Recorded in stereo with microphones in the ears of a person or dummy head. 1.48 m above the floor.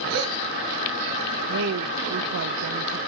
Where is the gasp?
75° right (ahead or behind), 6 m.